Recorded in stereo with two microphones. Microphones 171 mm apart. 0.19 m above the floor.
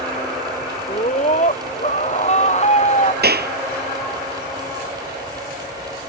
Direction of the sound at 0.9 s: 45° left (ahead or behind).